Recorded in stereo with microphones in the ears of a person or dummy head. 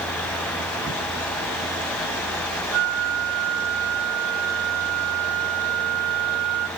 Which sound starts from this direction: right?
A flute, at 2.7 s.